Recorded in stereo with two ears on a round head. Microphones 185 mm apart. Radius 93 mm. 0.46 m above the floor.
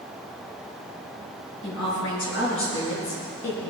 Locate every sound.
1.6 s a woman speaking: 65° left (ahead or behind), 6 m; by 3.7 s 80° left, 5.5 m